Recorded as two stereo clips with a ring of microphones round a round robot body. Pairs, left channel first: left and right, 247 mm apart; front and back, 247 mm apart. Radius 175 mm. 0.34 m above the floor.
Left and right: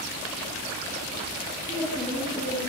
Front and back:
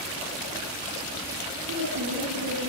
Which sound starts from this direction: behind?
A woman speaking, at 1.7 s.